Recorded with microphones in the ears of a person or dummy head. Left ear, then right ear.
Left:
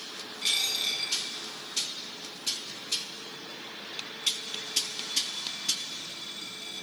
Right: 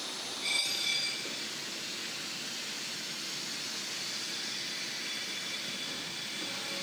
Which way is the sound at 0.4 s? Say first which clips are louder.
Left 4 dB; 25° left (ahead or behind).